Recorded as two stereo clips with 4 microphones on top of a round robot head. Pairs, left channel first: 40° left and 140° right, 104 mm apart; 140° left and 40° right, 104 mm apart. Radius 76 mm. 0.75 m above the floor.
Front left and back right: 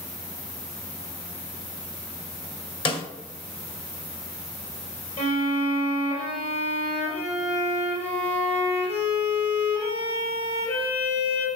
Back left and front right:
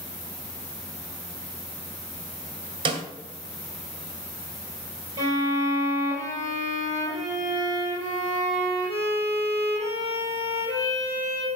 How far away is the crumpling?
I don't hear crumpling.